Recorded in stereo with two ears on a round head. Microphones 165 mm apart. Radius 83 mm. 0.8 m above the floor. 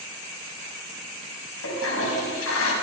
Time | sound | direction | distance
1.6 | a toilet flushing | 80° left | 5.5 m